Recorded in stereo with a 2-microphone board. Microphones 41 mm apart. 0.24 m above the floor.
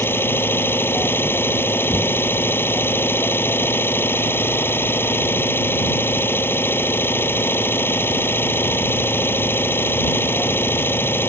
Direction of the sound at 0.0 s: 75° left (ahead or behind).